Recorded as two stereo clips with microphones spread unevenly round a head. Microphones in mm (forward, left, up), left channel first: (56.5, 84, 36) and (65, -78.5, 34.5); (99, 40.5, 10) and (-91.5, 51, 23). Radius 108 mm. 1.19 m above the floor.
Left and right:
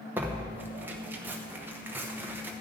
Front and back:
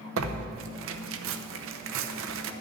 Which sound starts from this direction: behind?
Tearing paper, at 0.2 s.